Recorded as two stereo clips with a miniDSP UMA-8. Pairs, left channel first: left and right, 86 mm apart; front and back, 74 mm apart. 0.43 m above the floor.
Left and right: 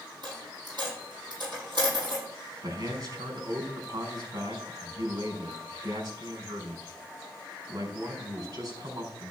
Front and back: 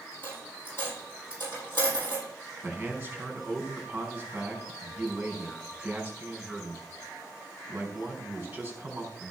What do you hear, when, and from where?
0.2 s a dropped coin: 60° right, 8.5 m
2.6 s a man speaking: 115° right, 4.5 m